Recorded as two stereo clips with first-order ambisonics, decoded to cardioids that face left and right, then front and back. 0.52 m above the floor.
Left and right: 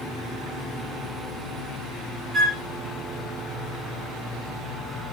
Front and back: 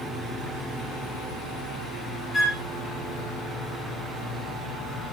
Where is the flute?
40° right, 1.4 m.